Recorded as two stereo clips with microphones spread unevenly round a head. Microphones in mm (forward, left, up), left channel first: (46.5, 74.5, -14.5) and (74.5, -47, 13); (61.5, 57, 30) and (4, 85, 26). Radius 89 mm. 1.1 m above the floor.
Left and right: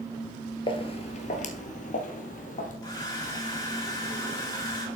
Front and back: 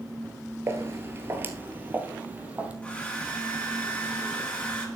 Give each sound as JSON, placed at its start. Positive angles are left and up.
{"t": 0.7, "sound": "footsteps", "azimuth_deg": 150, "distance_m": 1.2}
{"t": 2.8, "sound": "a hair dryer", "azimuth_deg": 45, "distance_m": 4.5}